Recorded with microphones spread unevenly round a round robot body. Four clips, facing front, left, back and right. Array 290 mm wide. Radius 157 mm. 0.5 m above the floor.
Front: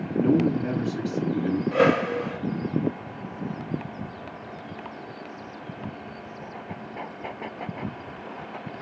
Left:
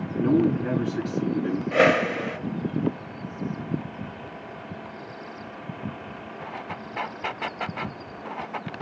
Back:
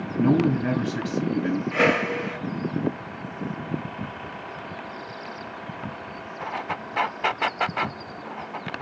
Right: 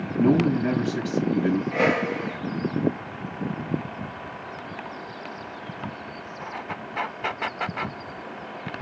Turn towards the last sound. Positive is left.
turn(degrees=90)